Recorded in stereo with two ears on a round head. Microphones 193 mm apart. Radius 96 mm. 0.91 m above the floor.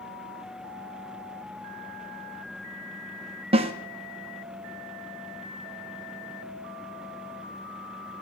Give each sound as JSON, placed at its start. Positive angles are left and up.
{"t": 3.5, "sound": "a snare drum", "side_deg": -25, "distance_m": 0.7}